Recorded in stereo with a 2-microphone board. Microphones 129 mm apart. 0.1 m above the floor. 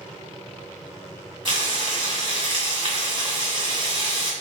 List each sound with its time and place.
1.4 s frying: 45° right (ahead or behind), 1.4 m